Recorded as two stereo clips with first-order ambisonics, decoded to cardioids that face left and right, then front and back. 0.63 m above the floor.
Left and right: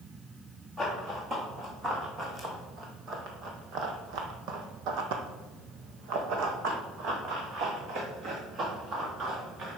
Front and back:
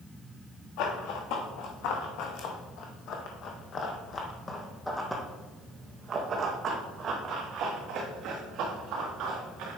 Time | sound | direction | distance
0.8 | running footsteps | 10° right | 2.5 m